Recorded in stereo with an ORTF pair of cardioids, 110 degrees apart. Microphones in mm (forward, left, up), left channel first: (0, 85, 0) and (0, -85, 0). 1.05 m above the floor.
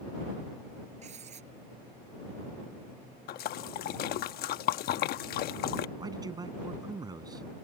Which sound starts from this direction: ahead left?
A splash, at 3.3 s.